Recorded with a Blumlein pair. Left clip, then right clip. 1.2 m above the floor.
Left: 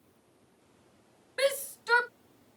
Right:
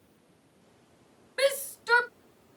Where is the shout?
5° right.